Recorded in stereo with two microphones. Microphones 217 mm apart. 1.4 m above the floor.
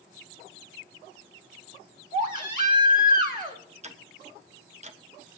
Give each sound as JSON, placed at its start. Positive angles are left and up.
{"t": 2.1, "sound": "a baby crying", "side_deg": -40, "distance_m": 1.5}
{"t": 3.8, "sound": "ticking", "side_deg": -30, "distance_m": 0.7}